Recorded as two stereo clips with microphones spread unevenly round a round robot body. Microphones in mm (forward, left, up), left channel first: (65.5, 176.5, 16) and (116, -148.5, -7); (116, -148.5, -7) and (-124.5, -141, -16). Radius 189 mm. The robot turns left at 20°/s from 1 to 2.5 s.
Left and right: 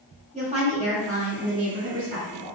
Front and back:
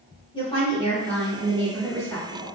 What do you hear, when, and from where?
0.3 s a woman speaking: 55° right, 1.5 m; by 2.5 s 85° right, 1.5 m